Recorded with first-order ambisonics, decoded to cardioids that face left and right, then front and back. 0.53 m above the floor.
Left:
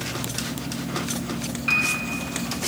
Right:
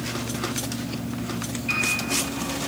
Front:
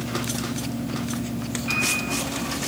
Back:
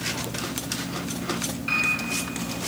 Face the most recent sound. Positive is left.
turn(degrees=105)